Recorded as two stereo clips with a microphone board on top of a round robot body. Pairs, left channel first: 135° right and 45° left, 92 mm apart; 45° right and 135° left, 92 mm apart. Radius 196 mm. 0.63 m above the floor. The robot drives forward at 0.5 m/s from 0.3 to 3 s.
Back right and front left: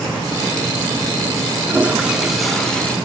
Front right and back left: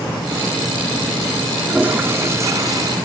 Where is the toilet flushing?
85° left, 1.0 m; by 3.0 s 150° left, 1.1 m.